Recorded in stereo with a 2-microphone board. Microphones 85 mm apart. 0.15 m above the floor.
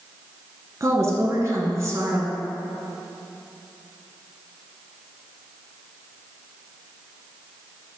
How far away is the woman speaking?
About 1.4 m.